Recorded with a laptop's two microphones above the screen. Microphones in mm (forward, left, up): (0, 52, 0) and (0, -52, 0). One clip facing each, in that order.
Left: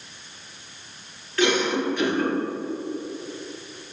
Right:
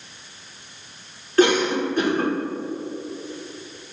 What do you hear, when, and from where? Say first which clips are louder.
1.4 s a cough: right 4 dB; 40° right (ahead or behind), 1.2 m